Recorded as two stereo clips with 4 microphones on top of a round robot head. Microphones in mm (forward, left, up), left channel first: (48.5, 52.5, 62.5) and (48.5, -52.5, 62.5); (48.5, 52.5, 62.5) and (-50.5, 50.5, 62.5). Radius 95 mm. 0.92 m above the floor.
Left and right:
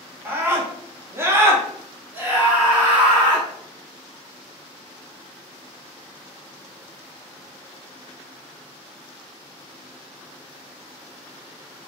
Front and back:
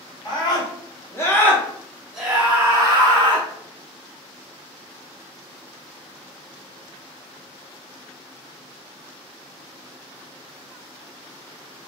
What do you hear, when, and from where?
0.2 s a scream: 30° right, 1.3 m; by 3.5 s 170° right, 1.1 m